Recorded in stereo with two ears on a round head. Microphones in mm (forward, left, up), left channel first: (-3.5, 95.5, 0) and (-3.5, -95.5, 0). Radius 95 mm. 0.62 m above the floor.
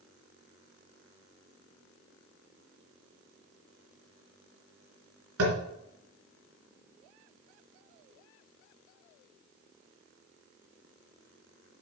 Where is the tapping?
80° right, 3.5 m.